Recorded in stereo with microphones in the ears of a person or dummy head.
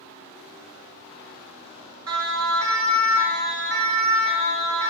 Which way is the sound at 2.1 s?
85° right.